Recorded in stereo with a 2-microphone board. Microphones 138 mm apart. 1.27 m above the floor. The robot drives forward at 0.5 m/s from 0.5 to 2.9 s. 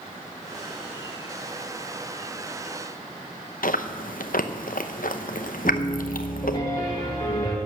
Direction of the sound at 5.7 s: 30° left (ahead or behind).